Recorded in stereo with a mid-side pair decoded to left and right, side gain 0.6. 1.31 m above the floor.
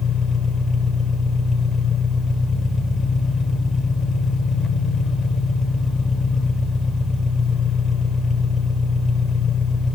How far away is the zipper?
I don't hear a zipper.